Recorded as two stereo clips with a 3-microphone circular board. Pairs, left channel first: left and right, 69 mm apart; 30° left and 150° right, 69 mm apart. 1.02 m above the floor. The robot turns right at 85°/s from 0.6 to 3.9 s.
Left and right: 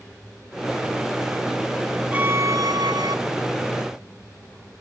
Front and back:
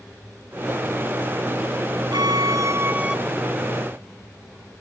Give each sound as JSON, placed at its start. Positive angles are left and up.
{"t": 2.1, "sound": "a violin", "azimuth_deg": -160}